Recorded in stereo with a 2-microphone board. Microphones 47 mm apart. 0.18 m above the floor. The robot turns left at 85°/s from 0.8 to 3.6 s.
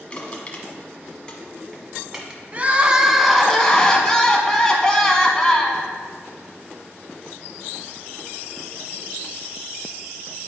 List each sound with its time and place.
0.1 s crushing: 25° left (ahead or behind), 1.3 m; by 2.4 s 15° right (ahead or behind), 1.3 m
2.5 s crying: 115° right, 0.8 m; by 5.9 s 155° left, 0.8 m